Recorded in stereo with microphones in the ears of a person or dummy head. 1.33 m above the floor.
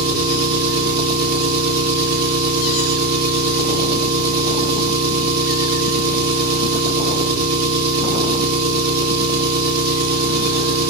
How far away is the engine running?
About 2.5 m.